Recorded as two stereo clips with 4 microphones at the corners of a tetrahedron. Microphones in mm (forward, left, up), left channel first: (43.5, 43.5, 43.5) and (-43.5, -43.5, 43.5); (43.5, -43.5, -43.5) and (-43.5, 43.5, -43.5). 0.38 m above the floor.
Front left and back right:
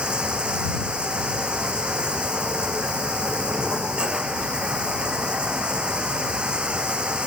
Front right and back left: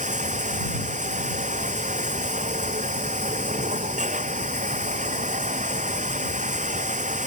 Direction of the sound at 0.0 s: 140° left.